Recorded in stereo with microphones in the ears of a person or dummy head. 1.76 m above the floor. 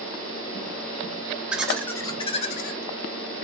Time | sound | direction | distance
1.5 | laughter | 10° right (ahead or behind) | 0.7 m